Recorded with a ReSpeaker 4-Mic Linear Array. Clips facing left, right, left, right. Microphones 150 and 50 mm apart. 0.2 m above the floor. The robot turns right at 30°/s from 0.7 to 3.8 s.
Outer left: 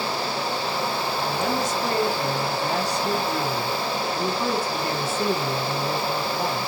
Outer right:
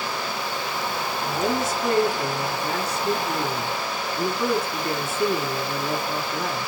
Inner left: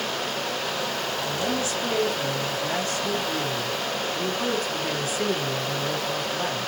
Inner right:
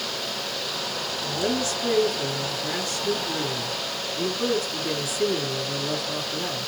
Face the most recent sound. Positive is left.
turn(degrees=95)